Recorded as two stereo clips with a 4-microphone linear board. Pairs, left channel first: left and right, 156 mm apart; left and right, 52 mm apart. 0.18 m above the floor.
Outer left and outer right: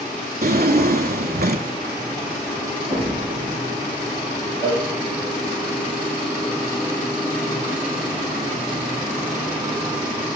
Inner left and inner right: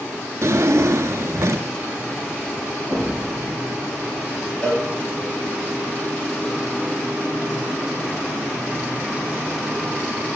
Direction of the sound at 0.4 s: 75° right (ahead or behind).